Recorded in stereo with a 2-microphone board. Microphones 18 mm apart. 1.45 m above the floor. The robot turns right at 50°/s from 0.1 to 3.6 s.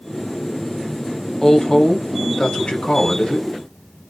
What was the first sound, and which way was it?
A woman speaking, 10° left.